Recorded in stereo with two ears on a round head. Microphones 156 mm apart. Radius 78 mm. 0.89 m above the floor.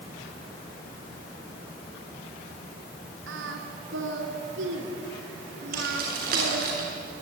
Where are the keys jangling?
60° right (ahead or behind), 8 m.